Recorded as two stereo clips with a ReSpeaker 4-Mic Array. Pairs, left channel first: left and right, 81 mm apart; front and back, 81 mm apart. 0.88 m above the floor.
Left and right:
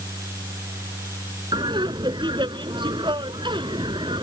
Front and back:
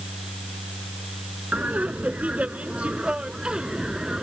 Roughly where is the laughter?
Right.